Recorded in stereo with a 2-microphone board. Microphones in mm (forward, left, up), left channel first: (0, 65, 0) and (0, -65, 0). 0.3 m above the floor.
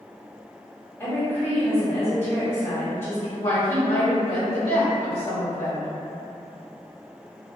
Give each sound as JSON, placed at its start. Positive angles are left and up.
{"t": 1.0, "sound": "a woman speaking", "side_deg": 20, "distance_m": 1.7}
{"t": 3.4, "sound": "a woman speaking", "side_deg": 25, "distance_m": 1.4}